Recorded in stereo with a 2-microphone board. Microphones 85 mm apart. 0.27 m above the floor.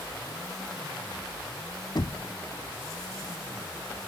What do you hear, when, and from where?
1.9 s knocking: 55° left (ahead or behind)